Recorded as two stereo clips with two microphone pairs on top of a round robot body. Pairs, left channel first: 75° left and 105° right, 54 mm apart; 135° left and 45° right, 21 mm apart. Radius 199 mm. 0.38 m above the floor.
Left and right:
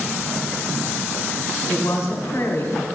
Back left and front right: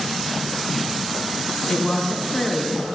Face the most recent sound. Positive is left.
turn(degrees=80)